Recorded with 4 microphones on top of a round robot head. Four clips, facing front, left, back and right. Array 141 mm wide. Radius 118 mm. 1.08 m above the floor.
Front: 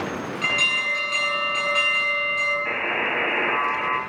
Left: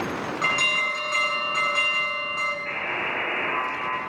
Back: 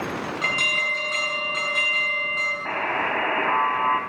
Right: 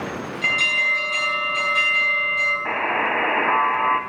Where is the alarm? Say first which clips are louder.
Right 3 dB, even; 120° left, 10 m.